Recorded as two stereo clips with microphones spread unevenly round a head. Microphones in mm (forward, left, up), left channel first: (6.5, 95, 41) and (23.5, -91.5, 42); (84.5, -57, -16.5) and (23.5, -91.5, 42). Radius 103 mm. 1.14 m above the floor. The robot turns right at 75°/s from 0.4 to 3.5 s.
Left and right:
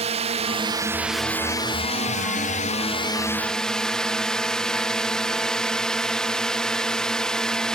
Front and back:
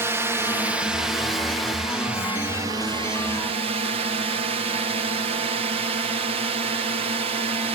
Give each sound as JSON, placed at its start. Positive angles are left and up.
{"t": 0.0, "sound": "a drone", "azimuth_deg": -50}